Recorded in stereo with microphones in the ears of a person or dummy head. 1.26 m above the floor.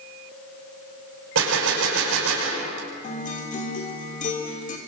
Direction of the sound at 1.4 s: 75° right (ahead or behind).